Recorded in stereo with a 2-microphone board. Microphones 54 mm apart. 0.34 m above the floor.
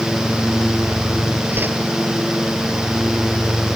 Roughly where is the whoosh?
Right.